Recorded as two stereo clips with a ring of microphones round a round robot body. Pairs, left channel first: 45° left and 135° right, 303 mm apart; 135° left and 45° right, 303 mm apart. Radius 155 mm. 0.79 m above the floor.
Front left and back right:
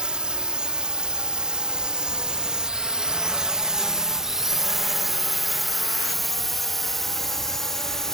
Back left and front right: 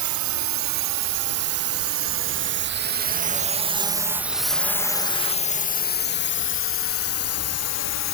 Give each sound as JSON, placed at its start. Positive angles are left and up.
{"t": 0.0, "sound": "a drone", "azimuth_deg": -50}